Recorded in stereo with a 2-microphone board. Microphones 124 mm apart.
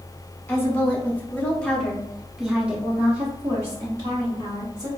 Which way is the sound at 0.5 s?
20° left (ahead or behind).